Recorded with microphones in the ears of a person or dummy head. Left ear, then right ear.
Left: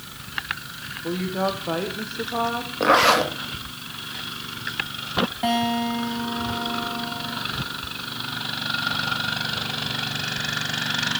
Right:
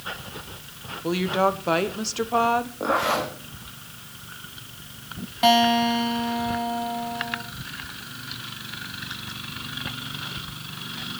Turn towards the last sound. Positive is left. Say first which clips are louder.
# right 10 dB
turn(degrees=-25)  # may be behind; listen again after turning